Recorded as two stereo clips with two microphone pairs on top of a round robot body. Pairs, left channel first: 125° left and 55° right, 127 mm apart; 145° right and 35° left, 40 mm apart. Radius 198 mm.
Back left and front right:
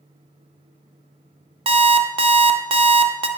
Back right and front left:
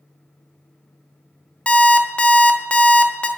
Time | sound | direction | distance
1.7 | an alarm clock | 95° right | 0.5 m